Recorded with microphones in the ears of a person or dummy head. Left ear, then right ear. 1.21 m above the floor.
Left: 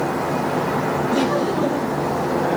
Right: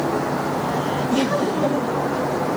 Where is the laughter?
10° right (ahead or behind), 1.2 m.